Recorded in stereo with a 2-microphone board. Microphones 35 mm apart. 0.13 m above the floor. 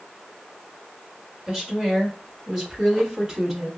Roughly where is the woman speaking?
Right.